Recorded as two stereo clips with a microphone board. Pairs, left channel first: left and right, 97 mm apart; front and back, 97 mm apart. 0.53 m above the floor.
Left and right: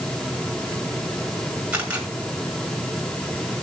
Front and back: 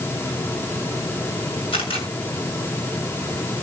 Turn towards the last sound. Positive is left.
turn(degrees=-10)